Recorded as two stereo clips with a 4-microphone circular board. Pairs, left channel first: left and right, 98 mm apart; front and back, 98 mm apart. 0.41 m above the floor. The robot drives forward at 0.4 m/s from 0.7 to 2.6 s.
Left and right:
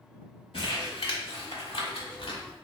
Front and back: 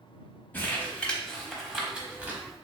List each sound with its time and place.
0.5 s crumpling: 70° left, 1.0 m; by 2.4 s 110° left, 1.0 m